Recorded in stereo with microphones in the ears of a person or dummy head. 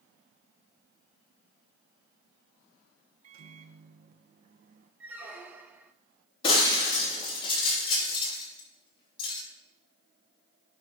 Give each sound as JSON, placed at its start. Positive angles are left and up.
{"t": 3.2, "sound": "a microwave", "side_deg": -55, "distance_m": 0.8}
{"t": 5.0, "sound": "a squeak", "side_deg": -15, "distance_m": 0.6}
{"t": 6.4, "sound": "breaking glass", "side_deg": 35, "distance_m": 3.0}